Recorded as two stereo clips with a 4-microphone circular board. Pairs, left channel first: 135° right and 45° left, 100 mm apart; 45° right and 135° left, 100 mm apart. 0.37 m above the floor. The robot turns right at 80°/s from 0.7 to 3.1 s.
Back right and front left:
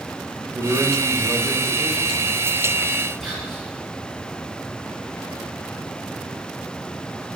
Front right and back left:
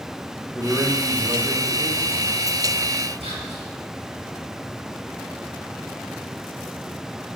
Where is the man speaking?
50° left, 1.0 m; by 2.4 s 170° right, 1.0 m.